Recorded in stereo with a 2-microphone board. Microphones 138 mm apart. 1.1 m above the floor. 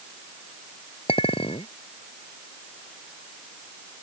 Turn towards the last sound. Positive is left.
turn(degrees=45)  # may be behind; listen again after turning